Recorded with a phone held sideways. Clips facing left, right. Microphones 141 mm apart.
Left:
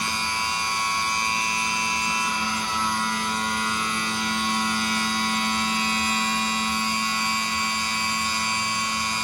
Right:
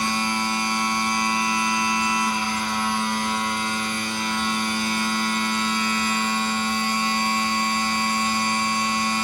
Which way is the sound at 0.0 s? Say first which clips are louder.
Right 5 dB; 55° right (ahead or behind).